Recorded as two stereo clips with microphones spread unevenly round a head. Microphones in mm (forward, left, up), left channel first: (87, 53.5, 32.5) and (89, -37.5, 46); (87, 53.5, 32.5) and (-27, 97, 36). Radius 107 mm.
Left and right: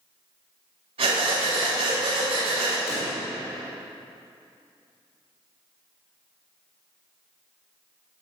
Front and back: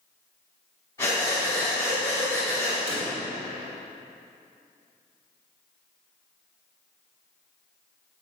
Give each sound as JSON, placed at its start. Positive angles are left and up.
{"t": 1.0, "sound": "breathing", "azimuth_deg": -95, "distance_m": 3.5}
{"t": 2.9, "sound": "a pop", "azimuth_deg": 120, "distance_m": 3.5}